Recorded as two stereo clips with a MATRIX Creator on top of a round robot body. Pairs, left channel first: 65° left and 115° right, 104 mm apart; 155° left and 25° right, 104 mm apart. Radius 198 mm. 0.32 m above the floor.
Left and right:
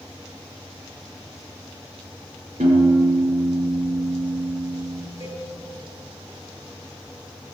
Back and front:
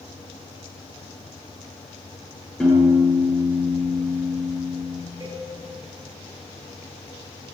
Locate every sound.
2.6 s a piano: 120° right, 7 m
5.2 s a cowbell: 90° right, 9.5 m